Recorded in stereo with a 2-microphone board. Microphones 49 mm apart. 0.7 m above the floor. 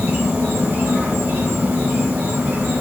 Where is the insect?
55° right (ahead or behind), 0.8 m.